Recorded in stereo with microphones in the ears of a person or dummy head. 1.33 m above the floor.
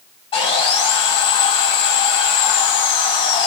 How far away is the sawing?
About 1.8 m.